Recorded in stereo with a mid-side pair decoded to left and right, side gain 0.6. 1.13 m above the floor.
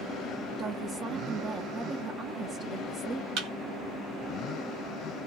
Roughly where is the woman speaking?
Ahead right.